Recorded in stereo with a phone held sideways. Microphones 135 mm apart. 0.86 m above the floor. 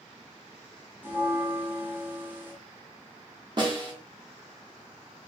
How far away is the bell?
About 0.9 m.